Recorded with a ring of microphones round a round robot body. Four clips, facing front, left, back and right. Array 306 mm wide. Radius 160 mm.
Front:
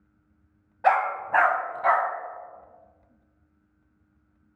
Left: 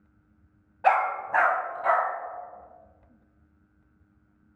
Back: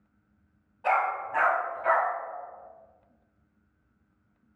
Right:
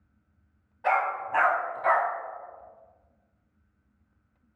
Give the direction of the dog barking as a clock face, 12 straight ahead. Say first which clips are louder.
Left 3 dB, front 4 dB; 11 o'clock.